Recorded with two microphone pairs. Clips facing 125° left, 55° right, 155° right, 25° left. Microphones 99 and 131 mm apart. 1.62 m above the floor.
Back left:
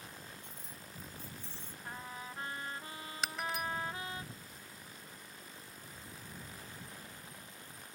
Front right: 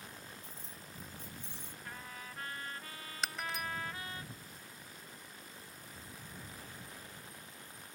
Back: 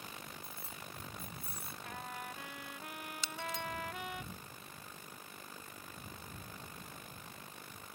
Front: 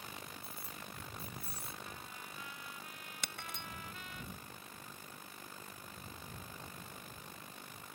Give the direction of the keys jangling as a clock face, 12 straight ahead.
3 o'clock.